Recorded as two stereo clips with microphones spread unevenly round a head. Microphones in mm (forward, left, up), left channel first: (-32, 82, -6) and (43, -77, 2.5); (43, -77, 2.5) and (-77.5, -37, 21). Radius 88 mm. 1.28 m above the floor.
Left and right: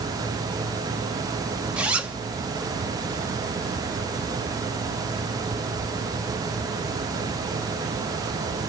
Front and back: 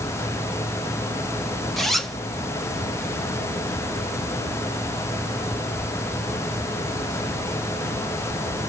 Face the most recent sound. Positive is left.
turn(degrees=-130)